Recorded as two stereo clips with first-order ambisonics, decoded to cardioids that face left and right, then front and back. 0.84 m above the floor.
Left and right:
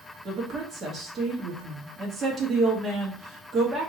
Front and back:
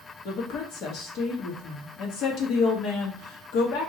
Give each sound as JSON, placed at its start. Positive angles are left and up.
{"t": 0.2, "sound": "a woman speaking", "azimuth_deg": -25, "distance_m": 1.2}